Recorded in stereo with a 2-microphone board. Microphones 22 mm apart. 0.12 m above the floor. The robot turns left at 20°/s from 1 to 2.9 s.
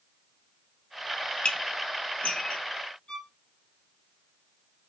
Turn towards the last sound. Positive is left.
turn(degrees=40)  # may be behind; listen again after turning